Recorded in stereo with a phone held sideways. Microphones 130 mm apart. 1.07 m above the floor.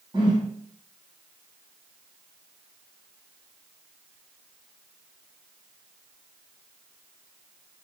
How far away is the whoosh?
About 6.5 m.